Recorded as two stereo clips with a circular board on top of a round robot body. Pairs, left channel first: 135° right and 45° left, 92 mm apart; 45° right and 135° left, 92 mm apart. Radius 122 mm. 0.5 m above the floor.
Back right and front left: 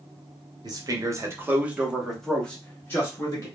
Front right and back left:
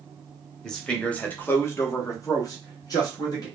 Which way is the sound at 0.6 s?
40° left.